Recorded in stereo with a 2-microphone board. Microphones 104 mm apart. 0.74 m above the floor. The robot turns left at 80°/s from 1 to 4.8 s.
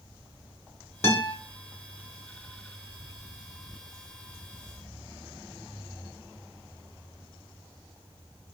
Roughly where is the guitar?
Left.